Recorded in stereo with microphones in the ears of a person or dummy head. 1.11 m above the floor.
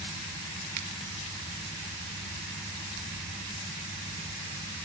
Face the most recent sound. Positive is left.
turn(degrees=-50)  # may be behind; listen again after turning